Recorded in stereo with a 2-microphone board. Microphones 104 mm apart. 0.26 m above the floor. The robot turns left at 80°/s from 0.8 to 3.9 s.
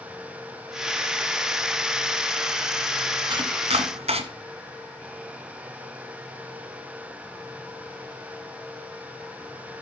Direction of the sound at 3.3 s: 45° right (ahead or behind).